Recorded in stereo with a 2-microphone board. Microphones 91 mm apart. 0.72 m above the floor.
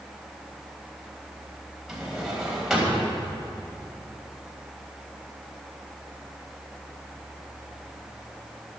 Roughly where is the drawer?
Centre.